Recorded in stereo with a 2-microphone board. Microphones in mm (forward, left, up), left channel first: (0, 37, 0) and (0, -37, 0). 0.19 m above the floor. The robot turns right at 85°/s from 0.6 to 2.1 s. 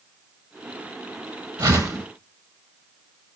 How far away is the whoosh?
About 3 m.